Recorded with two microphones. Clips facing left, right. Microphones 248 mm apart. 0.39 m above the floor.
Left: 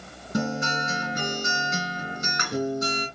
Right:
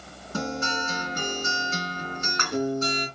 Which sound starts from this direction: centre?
A guitar, at 0.3 s.